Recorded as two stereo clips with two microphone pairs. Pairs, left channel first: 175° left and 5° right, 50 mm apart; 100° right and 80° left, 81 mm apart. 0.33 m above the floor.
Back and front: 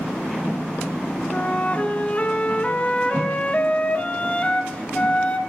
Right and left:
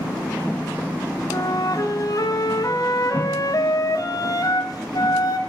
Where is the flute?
125° right, 1.2 m.